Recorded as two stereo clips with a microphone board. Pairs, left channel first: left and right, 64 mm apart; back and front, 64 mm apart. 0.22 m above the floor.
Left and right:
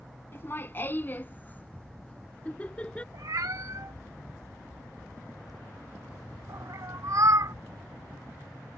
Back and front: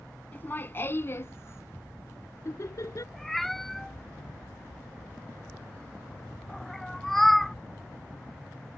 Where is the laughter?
130° left; by 3.0 s 160° left.